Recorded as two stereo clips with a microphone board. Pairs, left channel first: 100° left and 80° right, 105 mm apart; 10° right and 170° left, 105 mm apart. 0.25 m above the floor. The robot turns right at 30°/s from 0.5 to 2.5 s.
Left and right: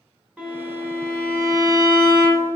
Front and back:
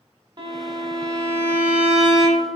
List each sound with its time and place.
0.4 s a violin: 155° right, 1.0 m; by 2.5 s 95° right, 1.0 m